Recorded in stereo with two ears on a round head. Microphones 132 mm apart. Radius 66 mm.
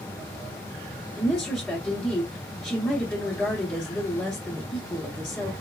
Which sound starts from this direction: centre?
A woman speaking, at 1.2 s.